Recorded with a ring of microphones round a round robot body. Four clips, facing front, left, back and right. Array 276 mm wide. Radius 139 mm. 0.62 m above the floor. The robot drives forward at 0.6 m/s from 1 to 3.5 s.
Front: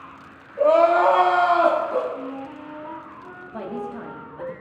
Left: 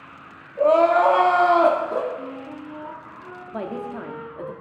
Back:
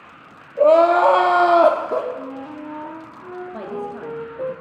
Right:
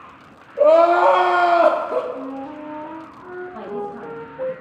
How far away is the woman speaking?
About 1.2 m.